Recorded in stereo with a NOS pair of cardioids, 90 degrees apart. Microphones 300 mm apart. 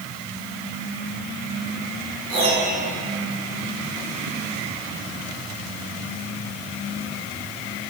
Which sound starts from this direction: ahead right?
A piano, at 2.3 s.